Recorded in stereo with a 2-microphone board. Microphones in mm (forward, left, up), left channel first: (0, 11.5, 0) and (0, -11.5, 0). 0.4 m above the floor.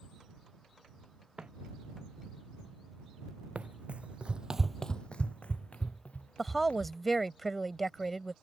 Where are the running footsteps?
80° right; by 7.0 s 70° left (ahead or behind).